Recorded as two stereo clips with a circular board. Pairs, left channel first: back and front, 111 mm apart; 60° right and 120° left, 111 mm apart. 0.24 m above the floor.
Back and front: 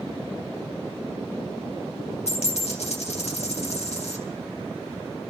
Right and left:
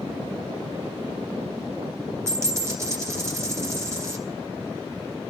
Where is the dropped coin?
175° right, 2 m.